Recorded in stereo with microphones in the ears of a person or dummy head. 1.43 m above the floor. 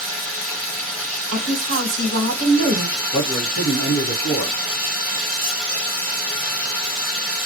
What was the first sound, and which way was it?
Running water, centre (ahead or behind).